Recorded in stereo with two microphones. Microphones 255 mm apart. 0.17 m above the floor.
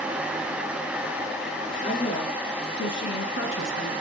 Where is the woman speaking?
35° left (ahead or behind), 3 m; by 3.9 s 45° left (ahead or behind), 1.7 m.